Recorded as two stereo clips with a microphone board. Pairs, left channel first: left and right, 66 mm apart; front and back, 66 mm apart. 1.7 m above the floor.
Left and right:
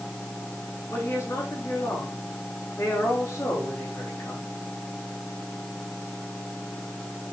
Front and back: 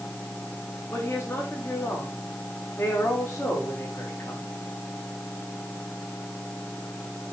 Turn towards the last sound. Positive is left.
turn(degrees=40)